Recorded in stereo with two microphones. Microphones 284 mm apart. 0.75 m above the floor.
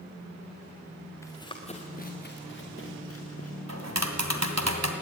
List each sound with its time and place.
1.2 s running footsteps: 10° left (ahead or behind), 3.5 m; by 3.6 s 60° left (ahead or behind), 5 m
3.7 s tapping: 65° right (ahead or behind), 2.5 m